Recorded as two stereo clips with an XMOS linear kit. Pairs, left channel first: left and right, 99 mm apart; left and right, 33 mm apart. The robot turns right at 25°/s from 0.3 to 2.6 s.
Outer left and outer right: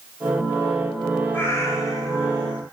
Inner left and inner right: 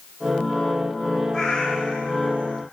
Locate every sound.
1.3 s a cat meowing: 20° left, 1.8 m; by 2.6 s 55° left, 1.8 m